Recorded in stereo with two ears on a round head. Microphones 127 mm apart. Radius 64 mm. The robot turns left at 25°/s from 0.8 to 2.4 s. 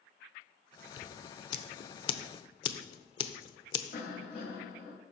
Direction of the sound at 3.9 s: 50° left (ahead or behind).